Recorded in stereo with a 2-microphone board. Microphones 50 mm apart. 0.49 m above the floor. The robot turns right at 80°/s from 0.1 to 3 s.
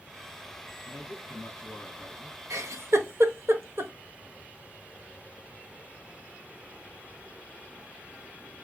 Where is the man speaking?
75° left, 3 m; by 2.4 s 165° right, 3 m.